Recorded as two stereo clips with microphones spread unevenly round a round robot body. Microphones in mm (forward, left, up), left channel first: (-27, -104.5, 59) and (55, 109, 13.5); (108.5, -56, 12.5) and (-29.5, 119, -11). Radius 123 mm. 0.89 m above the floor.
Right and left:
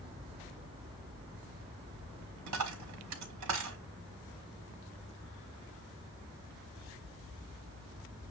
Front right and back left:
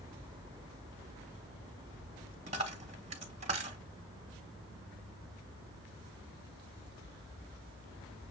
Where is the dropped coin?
65° left, 1.1 m.